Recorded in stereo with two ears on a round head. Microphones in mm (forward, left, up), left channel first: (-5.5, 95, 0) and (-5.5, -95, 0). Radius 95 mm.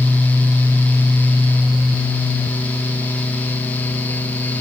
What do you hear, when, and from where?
Only background noise.